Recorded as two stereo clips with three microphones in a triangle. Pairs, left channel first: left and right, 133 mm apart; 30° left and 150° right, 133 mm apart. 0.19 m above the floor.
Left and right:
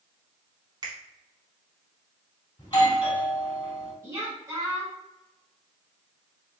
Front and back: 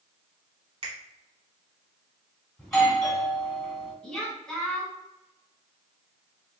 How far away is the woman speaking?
About 1.1 m.